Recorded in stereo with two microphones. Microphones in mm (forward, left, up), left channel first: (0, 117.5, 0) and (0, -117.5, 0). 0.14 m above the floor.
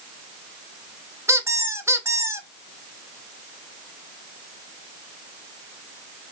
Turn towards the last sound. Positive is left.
turn(degrees=-10)  # may be behind; listen again after turning